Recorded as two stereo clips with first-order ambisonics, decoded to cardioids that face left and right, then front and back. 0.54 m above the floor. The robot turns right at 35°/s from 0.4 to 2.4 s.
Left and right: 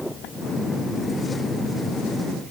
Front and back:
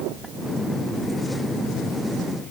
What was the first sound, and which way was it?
Only background noise.